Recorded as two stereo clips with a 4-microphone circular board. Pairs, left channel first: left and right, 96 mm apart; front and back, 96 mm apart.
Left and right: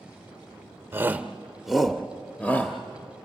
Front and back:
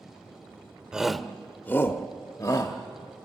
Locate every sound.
0.9 s a shout: 110° right, 0.9 m; by 2.8 s 25° left, 1.2 m